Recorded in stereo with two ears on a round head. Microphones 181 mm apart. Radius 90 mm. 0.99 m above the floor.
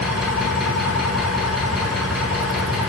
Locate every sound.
0.0 s an engine running: centre (ahead or behind), 7 m